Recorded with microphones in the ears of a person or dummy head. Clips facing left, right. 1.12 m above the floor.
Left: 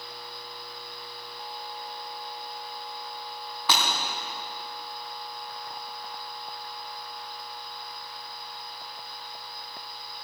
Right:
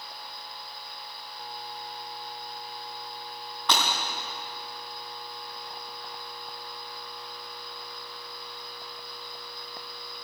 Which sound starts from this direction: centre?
Breaking glass, at 3.7 s.